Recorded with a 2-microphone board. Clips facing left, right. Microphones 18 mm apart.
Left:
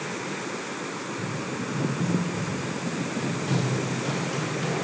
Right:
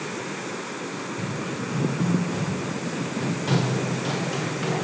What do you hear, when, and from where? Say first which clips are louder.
0.9 s running footsteps: right 1 dB; 80° right, 5 m; by 4.8 s 15° right (ahead or behind), 5 m